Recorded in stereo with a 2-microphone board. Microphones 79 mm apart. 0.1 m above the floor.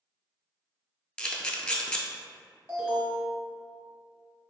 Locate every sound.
1.2 s a camera shutter: 15° left (ahead or behind), 0.6 m
2.7 s an alarm: 20° right (ahead or behind), 1.2 m